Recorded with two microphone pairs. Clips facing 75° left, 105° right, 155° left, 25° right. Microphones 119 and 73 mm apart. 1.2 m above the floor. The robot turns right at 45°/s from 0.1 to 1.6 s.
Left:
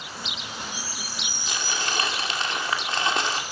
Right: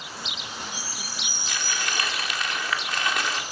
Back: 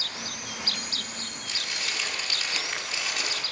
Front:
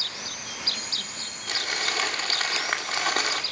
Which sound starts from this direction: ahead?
Crumpling, at 1.5 s.